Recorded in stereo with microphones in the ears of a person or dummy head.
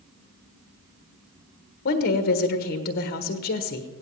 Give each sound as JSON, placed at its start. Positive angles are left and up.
{"t": 1.9, "sound": "a woman speaking", "side_deg": 45, "distance_m": 1.3}